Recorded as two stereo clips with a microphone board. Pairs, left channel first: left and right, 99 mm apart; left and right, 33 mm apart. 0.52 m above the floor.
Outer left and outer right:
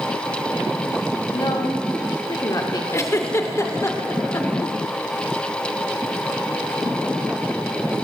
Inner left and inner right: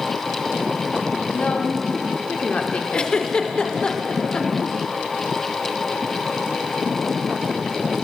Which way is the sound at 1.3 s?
40° left (ahead or behind).